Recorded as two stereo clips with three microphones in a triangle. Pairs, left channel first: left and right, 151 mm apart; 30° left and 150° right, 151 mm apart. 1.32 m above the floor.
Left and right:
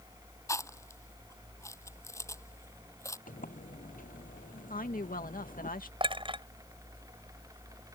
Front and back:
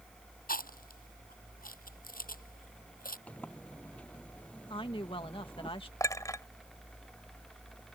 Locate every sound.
0.5 s chewing: 20° left
3.3 s a sliding door: 110° left
4.7 s a woman speaking: 80° left
6.0 s a clink: 40° right